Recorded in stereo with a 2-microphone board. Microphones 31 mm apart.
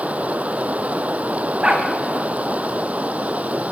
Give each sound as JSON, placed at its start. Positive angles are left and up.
{"t": 0.0, "sound": "running water", "side_deg": -55, "distance_m": 0.7}
{"t": 1.6, "sound": "a dog barking", "side_deg": -30, "distance_m": 3.5}